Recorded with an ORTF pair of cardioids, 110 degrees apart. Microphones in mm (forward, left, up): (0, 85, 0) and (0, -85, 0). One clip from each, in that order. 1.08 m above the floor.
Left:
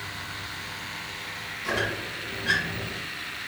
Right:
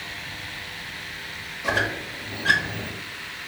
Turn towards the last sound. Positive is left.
turn(degrees=-70)